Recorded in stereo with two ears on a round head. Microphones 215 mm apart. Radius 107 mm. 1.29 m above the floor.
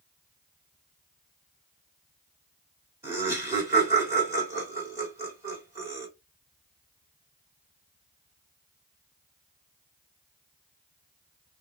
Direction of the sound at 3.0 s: 10° right (ahead or behind).